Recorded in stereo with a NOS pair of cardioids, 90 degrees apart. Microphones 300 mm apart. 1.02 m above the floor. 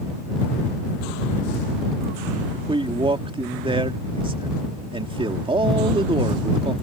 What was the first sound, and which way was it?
A man speaking, 20° right.